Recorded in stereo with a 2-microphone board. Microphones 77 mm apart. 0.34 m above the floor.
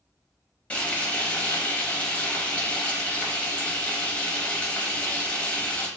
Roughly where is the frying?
Centre.